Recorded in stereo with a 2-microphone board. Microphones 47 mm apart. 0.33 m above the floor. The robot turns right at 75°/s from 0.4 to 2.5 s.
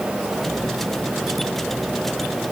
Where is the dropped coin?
No dropped coin in this recording.